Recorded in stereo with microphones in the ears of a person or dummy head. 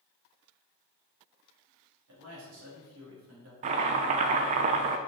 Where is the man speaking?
80° right, 3 m.